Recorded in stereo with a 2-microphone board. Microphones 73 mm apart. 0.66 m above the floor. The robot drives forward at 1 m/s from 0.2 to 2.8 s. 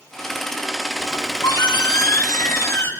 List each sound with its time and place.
1.0 s a squeak: 80° left, 1.2 m; by 2.9 s 35° left (ahead or behind), 2 m